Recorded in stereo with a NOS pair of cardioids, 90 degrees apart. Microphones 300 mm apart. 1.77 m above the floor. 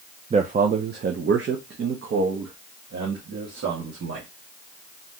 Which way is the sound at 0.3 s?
20° right.